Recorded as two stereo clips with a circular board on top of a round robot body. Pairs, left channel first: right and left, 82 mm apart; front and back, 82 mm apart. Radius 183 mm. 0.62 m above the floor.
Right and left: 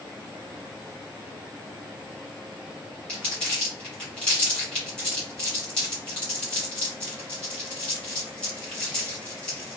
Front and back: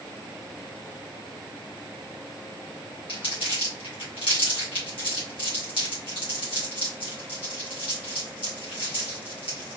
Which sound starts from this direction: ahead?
Crumpling, at 3.1 s.